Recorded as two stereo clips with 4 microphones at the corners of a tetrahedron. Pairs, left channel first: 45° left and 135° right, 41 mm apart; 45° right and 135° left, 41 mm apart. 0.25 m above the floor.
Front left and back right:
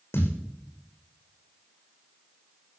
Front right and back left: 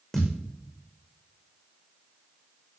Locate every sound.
0.1 s a thud: 45° left, 6 m